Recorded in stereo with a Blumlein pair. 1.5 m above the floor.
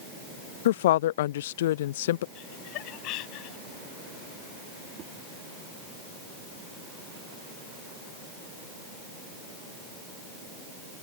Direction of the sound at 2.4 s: 40° left.